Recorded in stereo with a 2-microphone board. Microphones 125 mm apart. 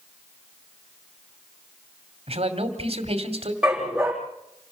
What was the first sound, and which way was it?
A man speaking, 55° right (ahead or behind).